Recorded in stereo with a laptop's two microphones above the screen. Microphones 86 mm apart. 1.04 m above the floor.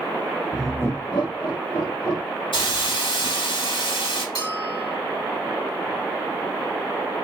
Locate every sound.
0.5 s laughter: 15° right (ahead or behind), 0.5 m; by 2.3 s 80° left, 2 m
2.5 s a hiss: 85° left, 2.5 m
4.3 s a bell: 65° left (ahead or behind), 2.5 m